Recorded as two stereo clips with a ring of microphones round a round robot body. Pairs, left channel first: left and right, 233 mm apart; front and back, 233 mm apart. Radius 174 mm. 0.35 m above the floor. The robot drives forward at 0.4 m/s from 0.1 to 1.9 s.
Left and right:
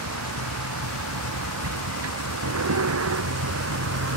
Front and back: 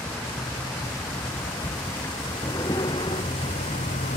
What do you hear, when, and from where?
0.0 s a vehicle: 85° right; by 4.2 s 70° right